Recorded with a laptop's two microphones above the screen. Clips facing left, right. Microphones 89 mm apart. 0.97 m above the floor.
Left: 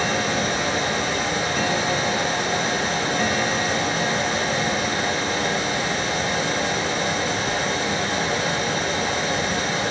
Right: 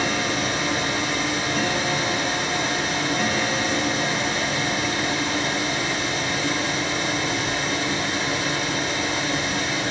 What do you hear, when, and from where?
0.0 s a fan: 55° left (ahead or behind), 4.5 m